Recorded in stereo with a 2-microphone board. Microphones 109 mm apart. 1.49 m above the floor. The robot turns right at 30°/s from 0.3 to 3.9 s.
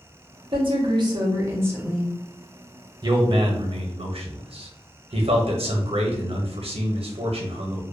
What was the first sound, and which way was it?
A woman speaking, 55° right.